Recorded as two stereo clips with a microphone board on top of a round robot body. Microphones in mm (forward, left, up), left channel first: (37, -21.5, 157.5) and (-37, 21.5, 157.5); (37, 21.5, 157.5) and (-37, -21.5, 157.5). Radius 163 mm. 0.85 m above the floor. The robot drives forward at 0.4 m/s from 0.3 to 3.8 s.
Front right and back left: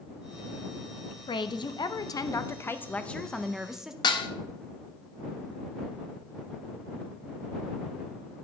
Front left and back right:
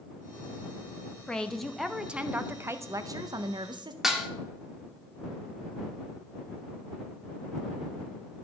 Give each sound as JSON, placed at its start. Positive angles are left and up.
{"t": 1.3, "sound": "a woman speaking", "azimuth_deg": -50, "distance_m": 0.9}
{"t": 4.0, "sound": "dishes clattering", "azimuth_deg": -65, "distance_m": 0.9}